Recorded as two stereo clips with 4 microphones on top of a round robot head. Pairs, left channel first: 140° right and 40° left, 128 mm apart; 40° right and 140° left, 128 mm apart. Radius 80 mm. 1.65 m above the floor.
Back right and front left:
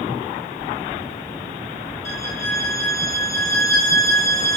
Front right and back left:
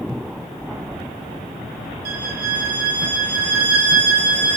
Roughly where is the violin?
Behind left.